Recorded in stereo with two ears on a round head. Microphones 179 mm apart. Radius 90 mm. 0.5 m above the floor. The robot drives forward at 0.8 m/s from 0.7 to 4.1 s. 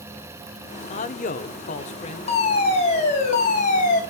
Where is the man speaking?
35° left (ahead or behind), 0.9 m; by 2.4 s 30° left (ahead or behind), 1.1 m.